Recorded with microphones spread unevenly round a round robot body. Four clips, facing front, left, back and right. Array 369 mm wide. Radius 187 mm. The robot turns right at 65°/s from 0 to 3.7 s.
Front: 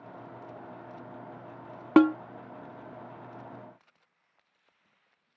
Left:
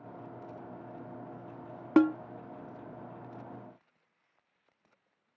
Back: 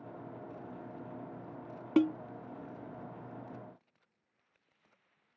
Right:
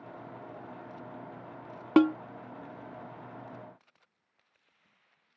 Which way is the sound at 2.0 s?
25° right.